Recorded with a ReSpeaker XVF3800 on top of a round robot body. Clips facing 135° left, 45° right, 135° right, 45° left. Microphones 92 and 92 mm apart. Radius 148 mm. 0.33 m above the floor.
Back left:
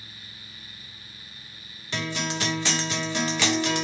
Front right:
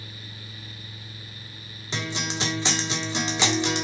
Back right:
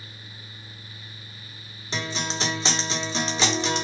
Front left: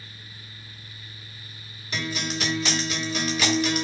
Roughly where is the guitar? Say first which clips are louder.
Back left 1 dB, even; right.